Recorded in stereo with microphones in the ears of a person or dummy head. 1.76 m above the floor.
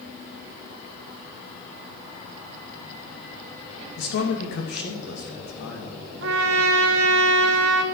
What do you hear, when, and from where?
4.0 s a man speaking: 65° left (ahead or behind), 2.5 m
6.2 s a trumpet: 75° right (ahead or behind), 1.3 m